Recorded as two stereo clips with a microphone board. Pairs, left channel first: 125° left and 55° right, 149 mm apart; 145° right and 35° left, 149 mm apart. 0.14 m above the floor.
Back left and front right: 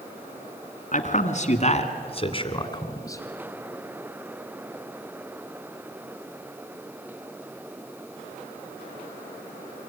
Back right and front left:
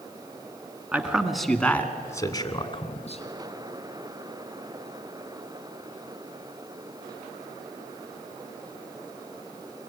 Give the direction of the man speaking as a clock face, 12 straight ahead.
8 o'clock.